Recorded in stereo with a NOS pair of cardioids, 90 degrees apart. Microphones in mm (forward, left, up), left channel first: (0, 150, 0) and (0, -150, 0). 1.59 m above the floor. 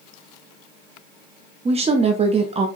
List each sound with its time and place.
1.6 s a woman speaking: 20° right, 0.6 m